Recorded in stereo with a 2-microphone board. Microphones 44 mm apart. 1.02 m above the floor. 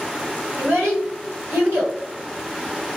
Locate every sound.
0.6 s a child speaking: 80° right, 1.8 m